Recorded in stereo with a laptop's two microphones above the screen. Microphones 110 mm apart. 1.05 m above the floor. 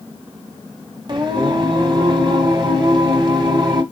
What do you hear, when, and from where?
1.1 s singing: 40° right (ahead or behind), 1.2 m